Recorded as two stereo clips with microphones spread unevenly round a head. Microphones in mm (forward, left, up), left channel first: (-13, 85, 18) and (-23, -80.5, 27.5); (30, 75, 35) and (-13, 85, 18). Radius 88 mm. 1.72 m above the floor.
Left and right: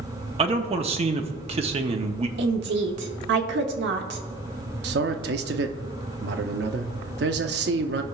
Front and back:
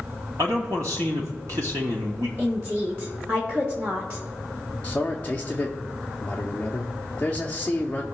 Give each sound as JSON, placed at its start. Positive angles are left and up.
{"t": 0.4, "sound": "a man speaking", "azimuth_deg": -135, "distance_m": 0.7}
{"t": 2.4, "sound": "a woman speaking", "azimuth_deg": -110, "distance_m": 1.0}
{"t": 4.8, "sound": "a man speaking", "azimuth_deg": -80, "distance_m": 0.6}